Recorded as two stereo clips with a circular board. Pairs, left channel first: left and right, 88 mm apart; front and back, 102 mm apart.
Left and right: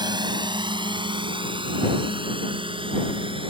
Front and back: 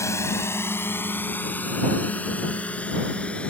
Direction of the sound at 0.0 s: 60° right.